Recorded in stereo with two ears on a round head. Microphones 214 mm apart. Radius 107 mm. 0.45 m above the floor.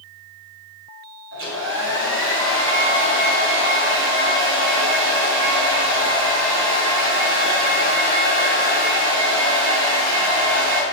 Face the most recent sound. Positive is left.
turn(degrees=-55)  # may be behind; listen again after turning